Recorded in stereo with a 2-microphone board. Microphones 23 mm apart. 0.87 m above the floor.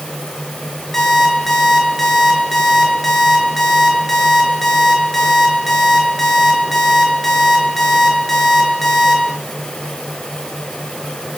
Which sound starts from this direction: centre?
An alarm clock, at 0.9 s.